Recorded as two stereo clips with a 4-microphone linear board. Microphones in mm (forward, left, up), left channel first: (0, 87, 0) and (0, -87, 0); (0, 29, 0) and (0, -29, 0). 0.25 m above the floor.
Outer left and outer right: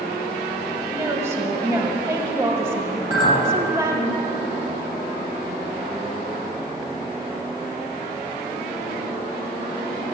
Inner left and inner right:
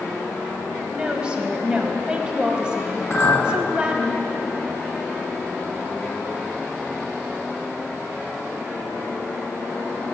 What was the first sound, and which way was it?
A woman speaking, 15° right (ahead or behind).